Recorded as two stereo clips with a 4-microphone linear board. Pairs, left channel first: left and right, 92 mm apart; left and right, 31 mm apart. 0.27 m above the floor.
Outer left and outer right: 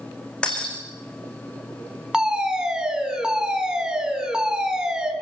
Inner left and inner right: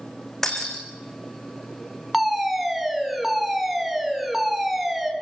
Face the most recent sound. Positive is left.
turn(degrees=-10)  # may be behind; listen again after turning